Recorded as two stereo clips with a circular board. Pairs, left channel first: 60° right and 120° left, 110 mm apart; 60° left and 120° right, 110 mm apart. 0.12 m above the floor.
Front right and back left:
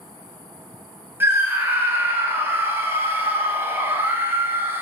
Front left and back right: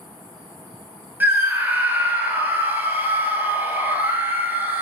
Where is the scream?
175° left, 1.4 m.